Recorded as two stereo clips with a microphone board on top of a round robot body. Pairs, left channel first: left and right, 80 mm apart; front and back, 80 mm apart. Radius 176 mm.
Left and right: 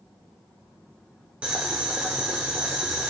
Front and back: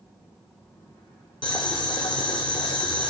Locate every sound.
1.4 s boiling: 15° right, 0.8 m